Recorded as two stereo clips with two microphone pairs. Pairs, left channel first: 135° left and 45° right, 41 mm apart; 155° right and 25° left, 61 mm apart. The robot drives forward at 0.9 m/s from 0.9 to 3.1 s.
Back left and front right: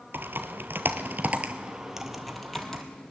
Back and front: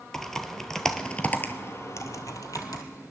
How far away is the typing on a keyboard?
About 1.0 m.